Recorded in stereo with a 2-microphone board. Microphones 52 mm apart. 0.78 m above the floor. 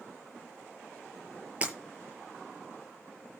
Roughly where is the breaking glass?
Right.